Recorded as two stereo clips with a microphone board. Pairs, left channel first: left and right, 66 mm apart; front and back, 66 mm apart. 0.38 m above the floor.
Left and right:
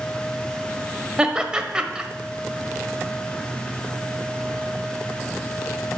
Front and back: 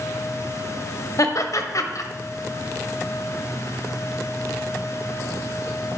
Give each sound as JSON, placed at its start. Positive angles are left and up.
{"t": 1.2, "sound": "laughter", "azimuth_deg": -15, "distance_m": 1.4}